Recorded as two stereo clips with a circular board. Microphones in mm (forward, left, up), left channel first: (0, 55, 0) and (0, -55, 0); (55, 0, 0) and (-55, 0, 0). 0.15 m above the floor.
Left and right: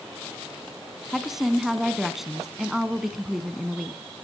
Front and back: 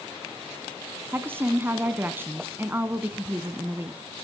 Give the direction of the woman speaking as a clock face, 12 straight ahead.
6 o'clock.